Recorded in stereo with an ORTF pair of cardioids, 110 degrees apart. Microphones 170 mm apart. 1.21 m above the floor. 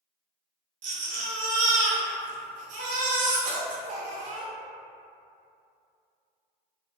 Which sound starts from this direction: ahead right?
A baby crying, at 0.8 s.